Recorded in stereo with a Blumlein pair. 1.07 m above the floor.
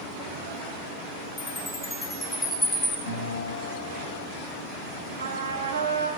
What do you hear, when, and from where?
1.4 s a chime: 10° left, 4 m
3.1 s a guitar: 65° left, 5 m
5.2 s a trumpet: 70° right, 1.8 m